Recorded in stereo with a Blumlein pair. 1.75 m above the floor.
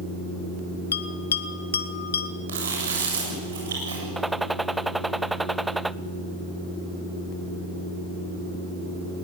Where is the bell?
70° left, 1.2 m.